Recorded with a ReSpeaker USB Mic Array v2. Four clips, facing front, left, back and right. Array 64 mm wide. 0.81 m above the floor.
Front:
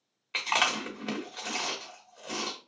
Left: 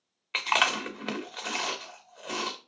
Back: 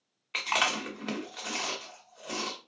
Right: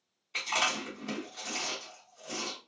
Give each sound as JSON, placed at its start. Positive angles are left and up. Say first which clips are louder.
{"t": 0.3, "sound": "chewing", "louder": "left 5 dB, front 1 dB", "azimuth_deg": 90, "distance_m": 1.0}